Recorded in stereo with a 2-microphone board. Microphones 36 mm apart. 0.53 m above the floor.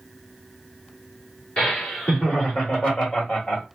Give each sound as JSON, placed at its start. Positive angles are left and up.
{"t": 1.6, "sound": "laughter", "side_deg": 35, "distance_m": 1.5}